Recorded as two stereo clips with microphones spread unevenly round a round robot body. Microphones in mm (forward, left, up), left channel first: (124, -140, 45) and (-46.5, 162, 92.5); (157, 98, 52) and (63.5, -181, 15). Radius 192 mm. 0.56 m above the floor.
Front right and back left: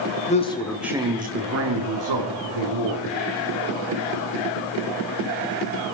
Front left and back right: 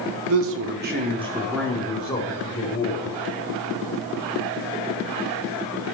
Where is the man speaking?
120° right, 1.1 m; by 3.0 s 135° left, 1.8 m.